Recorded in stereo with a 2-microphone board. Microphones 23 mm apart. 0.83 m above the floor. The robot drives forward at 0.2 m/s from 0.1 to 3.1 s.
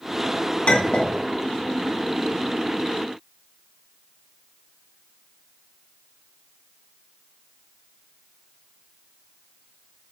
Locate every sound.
0.7 s a clink: 75° left (ahead or behind), 1.0 m